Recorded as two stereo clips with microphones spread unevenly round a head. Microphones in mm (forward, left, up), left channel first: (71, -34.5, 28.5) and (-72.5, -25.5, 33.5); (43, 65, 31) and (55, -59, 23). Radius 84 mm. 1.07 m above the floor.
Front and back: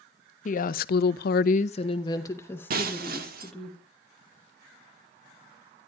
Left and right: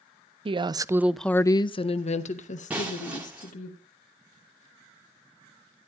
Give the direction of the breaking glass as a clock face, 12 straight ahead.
6 o'clock.